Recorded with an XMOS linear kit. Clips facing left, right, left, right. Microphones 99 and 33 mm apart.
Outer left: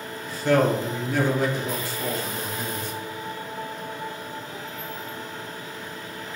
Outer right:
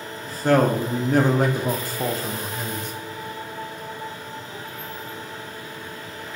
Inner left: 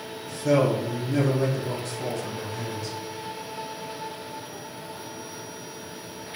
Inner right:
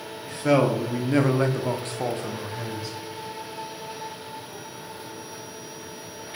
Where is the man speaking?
40° right (ahead or behind), 1.1 m; by 2.9 s 20° right (ahead or behind), 0.7 m.